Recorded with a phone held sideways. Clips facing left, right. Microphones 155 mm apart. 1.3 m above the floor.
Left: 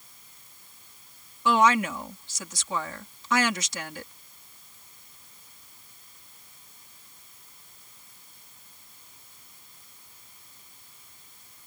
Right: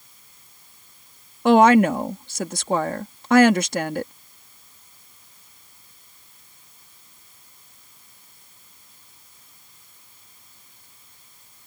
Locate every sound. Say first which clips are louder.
1.4 s a woman speaking: right 9 dB; 65° right (ahead or behind)